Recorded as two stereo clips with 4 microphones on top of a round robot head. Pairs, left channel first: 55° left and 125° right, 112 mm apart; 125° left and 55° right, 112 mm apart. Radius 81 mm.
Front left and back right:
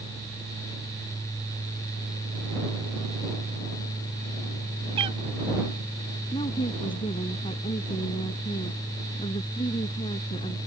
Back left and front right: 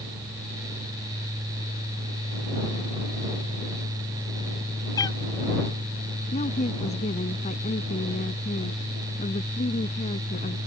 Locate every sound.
5.0 s a cat meowing: 175° right
6.3 s a woman speaking: 100° left